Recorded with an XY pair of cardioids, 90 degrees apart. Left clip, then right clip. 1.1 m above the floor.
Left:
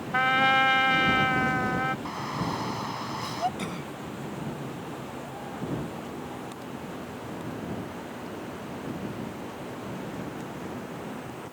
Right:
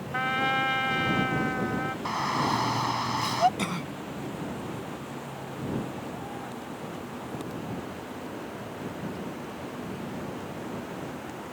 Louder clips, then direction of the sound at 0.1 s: Left 5 dB; 40° left.